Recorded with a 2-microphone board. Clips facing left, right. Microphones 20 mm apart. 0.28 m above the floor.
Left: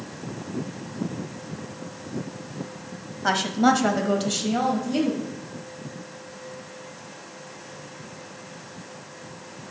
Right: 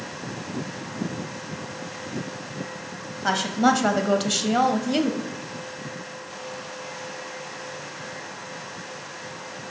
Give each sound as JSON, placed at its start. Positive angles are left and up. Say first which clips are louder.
{"t": 3.2, "sound": "a woman speaking", "louder": "even", "side_deg": 0, "distance_m": 1.2}